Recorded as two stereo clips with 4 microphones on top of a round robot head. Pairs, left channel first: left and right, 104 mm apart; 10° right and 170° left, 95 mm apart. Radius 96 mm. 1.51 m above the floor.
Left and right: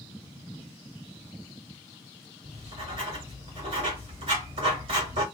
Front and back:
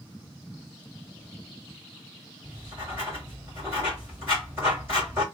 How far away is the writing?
About 2 m.